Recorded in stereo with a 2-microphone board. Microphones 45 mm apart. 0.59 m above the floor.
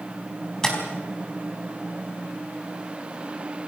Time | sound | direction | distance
0.6 | tapping | 15° left (ahead or behind) | 4.5 m